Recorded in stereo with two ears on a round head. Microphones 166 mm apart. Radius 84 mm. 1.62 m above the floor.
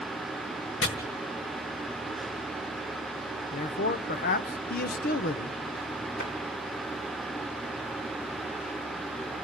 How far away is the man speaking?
About 0.7 m.